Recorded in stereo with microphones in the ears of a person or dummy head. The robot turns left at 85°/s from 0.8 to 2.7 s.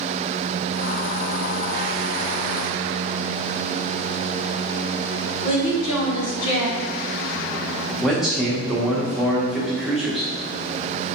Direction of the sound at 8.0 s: Centre (ahead or behind).